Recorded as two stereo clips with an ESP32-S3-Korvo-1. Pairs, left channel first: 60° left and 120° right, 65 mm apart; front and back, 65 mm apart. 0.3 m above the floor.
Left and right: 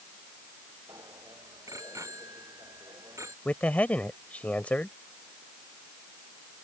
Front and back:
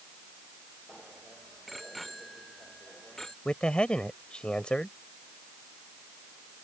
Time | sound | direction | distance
0.9 | a bicycle bell | 90° right | ?
3.5 | a man speaking | 50° left | ?